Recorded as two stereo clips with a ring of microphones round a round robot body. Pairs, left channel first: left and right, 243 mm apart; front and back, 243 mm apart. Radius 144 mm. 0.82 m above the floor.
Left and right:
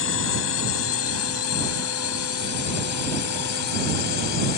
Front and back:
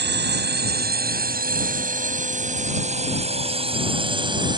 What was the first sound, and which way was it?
A drone, 135° left.